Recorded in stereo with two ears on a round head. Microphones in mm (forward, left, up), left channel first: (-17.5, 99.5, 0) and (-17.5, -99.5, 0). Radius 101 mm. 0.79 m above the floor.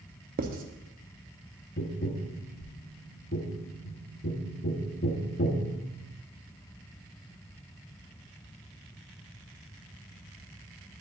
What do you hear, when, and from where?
0.4 s writing: 40° right (ahead or behind), 0.7 m
1.8 s tapping: 40° left (ahead or behind), 0.9 m